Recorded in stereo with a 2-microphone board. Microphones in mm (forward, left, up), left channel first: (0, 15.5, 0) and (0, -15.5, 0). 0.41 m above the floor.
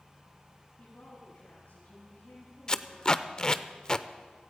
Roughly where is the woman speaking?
Left.